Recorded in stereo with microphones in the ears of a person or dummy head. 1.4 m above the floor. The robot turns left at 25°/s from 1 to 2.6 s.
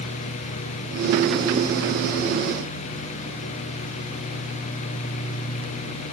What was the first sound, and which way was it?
Only background noise.